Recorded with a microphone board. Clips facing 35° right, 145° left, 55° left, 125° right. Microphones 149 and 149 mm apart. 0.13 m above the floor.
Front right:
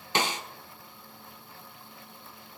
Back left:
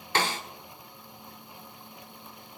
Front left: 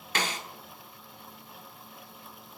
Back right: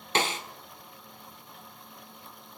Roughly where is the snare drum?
Right.